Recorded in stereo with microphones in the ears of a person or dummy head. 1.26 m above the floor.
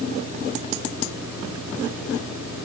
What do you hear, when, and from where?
Only background noise.